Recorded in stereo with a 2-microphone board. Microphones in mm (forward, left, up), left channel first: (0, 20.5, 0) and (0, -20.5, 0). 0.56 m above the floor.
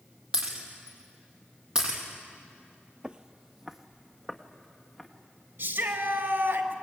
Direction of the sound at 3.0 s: 25° right (ahead or behind).